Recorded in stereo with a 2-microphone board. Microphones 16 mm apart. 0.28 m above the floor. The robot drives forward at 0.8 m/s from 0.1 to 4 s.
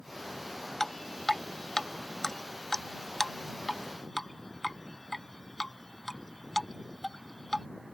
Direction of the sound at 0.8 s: 20° left (ahead or behind).